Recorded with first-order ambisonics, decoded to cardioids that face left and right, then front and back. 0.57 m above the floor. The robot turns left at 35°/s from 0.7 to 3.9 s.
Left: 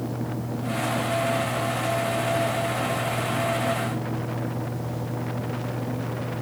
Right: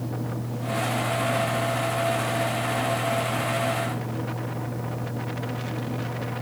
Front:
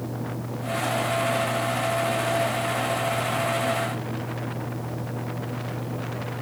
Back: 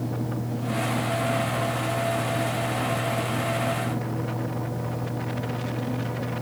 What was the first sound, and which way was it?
Only background noise.